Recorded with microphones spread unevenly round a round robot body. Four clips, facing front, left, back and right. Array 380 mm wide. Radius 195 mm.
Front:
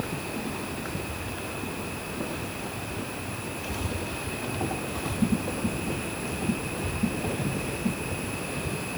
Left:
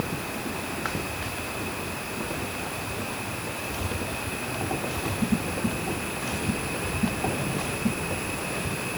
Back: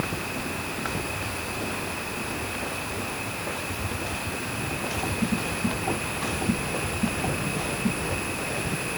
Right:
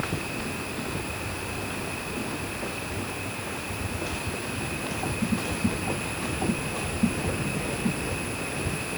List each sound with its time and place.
Only background noise.